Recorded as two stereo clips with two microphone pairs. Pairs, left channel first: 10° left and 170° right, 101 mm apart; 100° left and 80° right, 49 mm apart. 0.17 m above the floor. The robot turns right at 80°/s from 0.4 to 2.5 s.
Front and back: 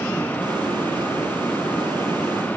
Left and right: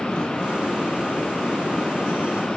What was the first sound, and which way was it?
Only background noise.